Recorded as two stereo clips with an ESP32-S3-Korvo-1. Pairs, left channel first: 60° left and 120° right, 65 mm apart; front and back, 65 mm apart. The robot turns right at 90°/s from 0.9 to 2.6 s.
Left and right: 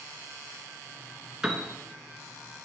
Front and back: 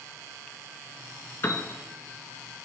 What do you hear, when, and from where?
1.4 s a piano: 45° right, 0.6 m; by 1.7 s 15° right, 0.6 m